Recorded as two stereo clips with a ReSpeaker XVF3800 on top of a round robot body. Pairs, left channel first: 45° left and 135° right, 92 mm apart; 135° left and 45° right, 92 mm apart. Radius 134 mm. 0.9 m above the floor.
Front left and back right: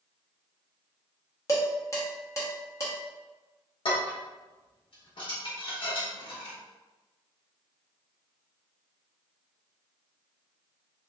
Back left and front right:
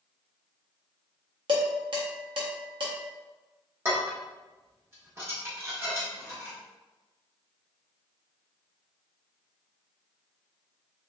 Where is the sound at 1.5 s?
10° right, 1.3 m.